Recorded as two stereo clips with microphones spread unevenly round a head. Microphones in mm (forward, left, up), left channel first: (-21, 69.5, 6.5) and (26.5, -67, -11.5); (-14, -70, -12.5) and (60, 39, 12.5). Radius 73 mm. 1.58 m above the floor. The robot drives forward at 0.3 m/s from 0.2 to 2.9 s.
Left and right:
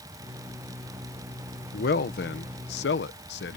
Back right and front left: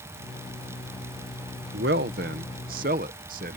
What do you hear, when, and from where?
1.7 s a man speaking: 80° left; by 3.6 s 95° left